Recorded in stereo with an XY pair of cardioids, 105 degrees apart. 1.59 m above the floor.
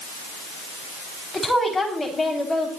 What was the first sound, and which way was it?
A woman speaking, 10° left.